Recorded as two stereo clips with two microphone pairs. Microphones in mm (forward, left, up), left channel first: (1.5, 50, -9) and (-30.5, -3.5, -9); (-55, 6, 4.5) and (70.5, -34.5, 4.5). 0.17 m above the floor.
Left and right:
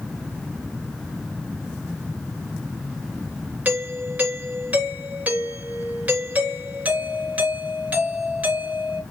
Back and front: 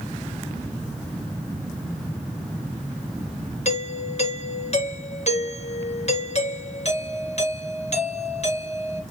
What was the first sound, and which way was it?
A doorbell, straight behind.